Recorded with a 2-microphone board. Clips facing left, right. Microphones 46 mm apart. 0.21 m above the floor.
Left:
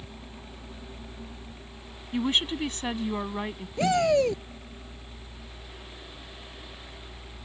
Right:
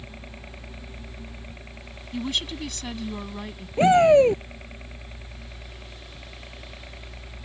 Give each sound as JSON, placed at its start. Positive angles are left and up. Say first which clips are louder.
{"t": 0.0, "sound": "a helicopter", "louder": "right 2 dB", "side_deg": -45}
{"t": 2.1, "sound": "a woman speaking", "louder": "left 3 dB", "side_deg": 30}
{"t": 3.8, "sound": "a shout", "louder": "right 7 dB", "side_deg": -30}